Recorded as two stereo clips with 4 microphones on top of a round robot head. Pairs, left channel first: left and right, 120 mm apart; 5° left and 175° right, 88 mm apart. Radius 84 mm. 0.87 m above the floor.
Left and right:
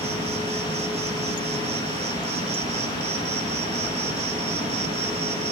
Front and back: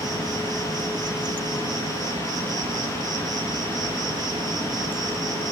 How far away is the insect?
About 0.7 m.